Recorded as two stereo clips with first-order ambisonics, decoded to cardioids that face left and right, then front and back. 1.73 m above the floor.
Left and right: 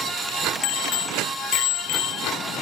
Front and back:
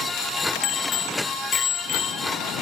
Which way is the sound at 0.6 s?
50° left.